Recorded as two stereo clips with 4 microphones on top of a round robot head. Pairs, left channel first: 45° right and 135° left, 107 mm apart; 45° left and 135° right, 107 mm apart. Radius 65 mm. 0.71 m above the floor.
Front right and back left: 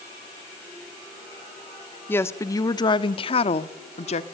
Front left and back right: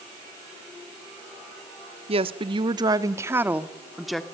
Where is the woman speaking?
115° right, 1.3 m; by 4.2 s 45° right, 1.5 m.